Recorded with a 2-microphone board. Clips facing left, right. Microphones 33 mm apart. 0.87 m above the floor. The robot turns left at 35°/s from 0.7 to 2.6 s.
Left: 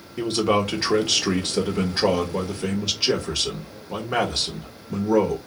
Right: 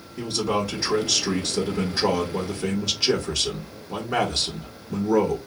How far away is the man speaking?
About 1.4 m.